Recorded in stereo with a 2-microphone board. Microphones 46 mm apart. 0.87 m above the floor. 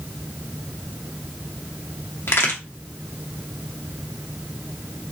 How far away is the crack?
About 1.2 m.